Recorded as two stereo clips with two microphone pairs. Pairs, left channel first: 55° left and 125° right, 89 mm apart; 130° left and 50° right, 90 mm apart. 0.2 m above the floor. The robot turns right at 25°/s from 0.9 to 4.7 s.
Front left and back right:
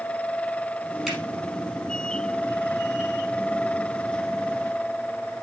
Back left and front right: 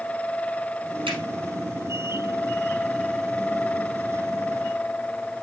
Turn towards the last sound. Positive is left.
turn(degrees=55)